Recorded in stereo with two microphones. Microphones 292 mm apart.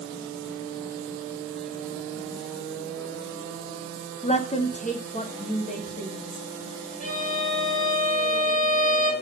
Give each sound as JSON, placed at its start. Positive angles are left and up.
{"t": 4.2, "sound": "a woman speaking", "side_deg": 25, "distance_m": 0.7}
{"t": 7.0, "sound": "a violin", "side_deg": 30, "distance_m": 1.7}